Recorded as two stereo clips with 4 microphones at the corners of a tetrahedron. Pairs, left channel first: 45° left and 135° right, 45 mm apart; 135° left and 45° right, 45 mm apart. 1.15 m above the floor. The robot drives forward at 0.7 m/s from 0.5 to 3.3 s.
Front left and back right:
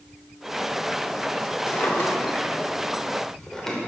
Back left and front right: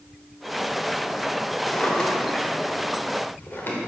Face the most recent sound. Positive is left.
turn(degrees=120)